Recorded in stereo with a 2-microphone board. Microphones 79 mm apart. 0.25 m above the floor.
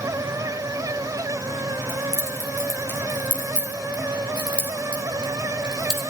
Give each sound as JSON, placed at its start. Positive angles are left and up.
{"t": 1.9, "sound": "keys jangling", "side_deg": 30, "distance_m": 4.0}